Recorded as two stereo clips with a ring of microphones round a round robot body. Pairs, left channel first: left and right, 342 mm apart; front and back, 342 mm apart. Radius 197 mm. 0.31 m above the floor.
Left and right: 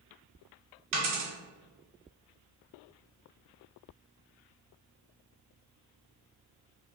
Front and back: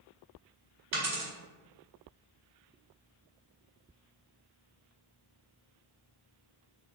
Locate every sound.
0.9 s a dropped coin: 125° right, 1.9 m